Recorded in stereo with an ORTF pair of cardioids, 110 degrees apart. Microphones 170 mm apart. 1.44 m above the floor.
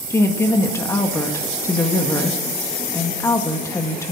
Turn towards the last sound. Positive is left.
turn(degrees=15)